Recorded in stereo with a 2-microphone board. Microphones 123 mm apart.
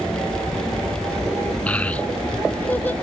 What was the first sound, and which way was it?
A child speaking, 10° left (ahead or behind).